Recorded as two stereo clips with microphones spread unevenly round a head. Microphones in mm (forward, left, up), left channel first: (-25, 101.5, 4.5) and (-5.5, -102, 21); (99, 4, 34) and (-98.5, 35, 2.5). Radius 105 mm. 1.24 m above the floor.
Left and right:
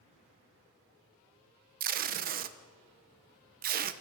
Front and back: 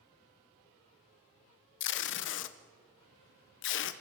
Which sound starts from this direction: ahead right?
Tape being pulled, at 1.8 s.